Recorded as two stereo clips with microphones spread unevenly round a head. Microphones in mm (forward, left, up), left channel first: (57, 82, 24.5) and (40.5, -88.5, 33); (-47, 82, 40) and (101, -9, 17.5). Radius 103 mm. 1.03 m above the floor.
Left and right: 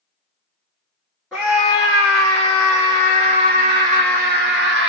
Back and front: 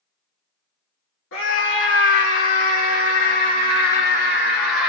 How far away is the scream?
About 1.9 m.